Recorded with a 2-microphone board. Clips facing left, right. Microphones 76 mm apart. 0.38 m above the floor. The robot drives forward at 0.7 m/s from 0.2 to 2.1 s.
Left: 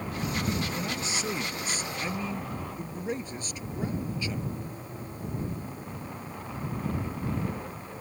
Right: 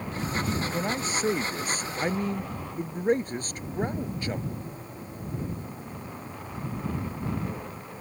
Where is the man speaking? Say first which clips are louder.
Right 4 dB; 40° right (ahead or behind); by 4.5 s 45° right (ahead or behind).